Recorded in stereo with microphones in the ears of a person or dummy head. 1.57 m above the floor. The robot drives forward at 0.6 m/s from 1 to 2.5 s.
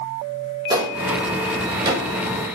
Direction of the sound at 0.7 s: 20° right (ahead or behind).